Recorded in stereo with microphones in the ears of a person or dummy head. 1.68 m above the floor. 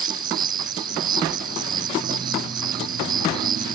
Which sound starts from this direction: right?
An insect, at 0.0 s.